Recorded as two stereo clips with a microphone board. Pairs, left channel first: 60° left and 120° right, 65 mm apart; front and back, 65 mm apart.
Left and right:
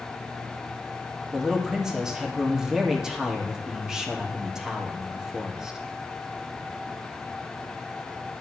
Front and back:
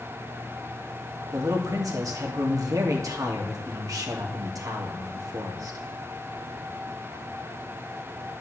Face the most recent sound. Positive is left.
turn(degrees=160)